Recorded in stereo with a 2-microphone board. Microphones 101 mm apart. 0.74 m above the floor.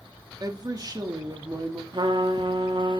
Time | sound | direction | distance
0.4 | a woman speaking | 40° right (ahead or behind) | 1.5 m
1.9 | a trumpet | 50° right (ahead or behind) | 1.3 m